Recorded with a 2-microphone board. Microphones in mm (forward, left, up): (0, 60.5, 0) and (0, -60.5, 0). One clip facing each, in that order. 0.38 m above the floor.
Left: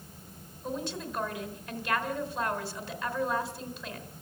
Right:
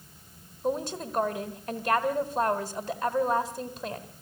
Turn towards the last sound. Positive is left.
turn(degrees=-45)  # may be behind; listen again after turning